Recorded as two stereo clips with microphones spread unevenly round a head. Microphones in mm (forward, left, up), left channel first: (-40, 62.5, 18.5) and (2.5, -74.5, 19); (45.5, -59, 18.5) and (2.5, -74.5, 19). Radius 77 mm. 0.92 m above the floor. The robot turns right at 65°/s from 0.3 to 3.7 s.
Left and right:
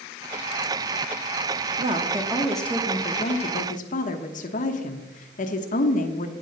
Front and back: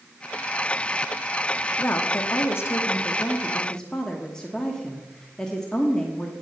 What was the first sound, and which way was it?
A woman speaking, 30° right.